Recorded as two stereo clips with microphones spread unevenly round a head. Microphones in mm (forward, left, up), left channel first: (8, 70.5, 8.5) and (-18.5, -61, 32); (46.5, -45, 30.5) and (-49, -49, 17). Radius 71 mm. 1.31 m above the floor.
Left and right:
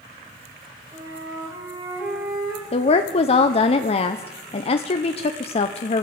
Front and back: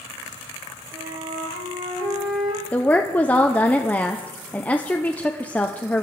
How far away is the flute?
About 5.5 m.